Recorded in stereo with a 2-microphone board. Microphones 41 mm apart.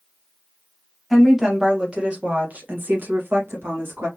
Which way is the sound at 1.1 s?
10° right (ahead or behind).